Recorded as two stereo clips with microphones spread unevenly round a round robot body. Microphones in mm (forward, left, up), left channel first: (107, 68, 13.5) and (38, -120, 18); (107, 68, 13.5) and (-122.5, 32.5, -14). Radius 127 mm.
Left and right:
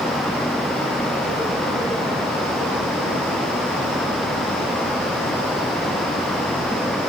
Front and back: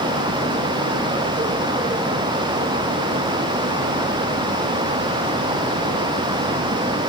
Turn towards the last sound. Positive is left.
No sound to turn to.